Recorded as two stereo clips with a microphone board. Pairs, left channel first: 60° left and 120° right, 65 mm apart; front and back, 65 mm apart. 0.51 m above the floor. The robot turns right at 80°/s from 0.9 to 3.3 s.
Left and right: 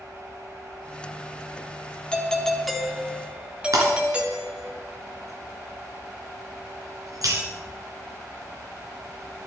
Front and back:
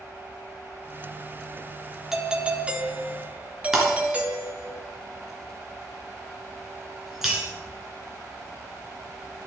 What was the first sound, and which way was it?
A doorbell, 105° left.